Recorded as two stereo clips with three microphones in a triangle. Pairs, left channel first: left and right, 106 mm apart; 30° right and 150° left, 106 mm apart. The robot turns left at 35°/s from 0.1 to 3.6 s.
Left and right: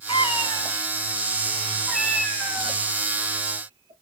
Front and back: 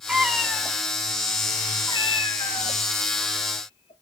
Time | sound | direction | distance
0.1 | a cat meowing | 70° left | 0.9 m